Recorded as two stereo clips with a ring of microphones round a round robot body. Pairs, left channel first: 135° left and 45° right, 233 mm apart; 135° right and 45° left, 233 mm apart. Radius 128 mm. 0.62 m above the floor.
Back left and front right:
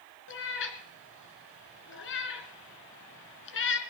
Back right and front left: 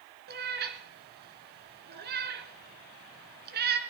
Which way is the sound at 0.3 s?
95° left.